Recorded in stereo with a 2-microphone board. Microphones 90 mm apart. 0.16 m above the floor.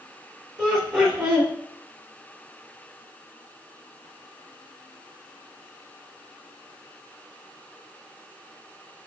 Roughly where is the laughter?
Centre.